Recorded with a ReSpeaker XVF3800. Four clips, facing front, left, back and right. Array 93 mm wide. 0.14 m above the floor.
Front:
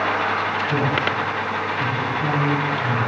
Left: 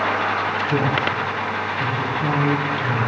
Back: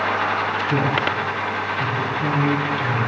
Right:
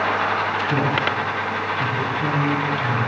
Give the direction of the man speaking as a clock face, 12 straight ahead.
4 o'clock.